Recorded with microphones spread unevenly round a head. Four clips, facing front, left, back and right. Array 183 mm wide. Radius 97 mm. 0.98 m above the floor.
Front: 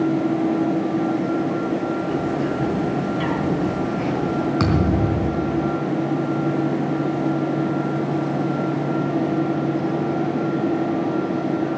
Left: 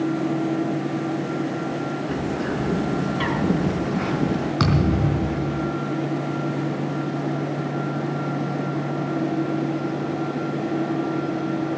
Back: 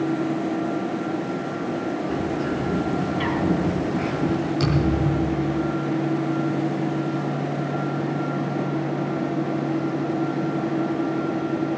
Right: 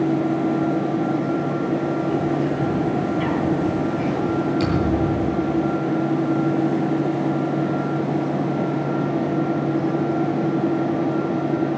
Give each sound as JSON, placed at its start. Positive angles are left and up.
{"t": 2.1, "sound": "a bird", "azimuth_deg": 95, "distance_m": 6.0}
{"t": 4.6, "sound": "a thud", "azimuth_deg": 55, "distance_m": 4.0}